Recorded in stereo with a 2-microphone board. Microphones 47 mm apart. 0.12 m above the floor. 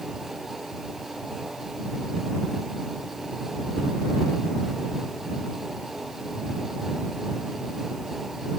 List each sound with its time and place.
Only background noise.